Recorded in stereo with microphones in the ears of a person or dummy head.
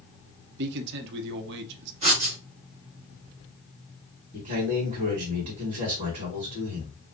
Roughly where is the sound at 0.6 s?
Right.